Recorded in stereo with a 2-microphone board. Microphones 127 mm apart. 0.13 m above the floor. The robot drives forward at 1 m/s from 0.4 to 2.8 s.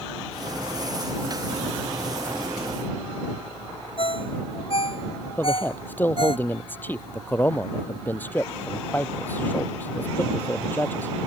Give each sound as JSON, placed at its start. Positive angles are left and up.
{"t": 4.0, "sound": "a ringtone", "side_deg": 50}
{"t": 5.4, "sound": "a man speaking", "side_deg": 15}